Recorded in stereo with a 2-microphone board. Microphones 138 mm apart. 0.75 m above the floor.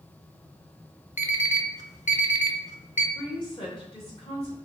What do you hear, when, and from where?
1.2 s an alarm clock: 60° left (ahead or behind), 0.5 m
3.1 s a woman speaking: 40° left (ahead or behind), 2 m